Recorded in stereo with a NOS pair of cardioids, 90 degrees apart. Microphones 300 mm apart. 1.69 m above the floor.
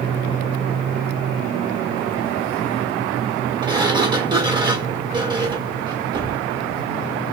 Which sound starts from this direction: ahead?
A sliding door, at 3.6 s.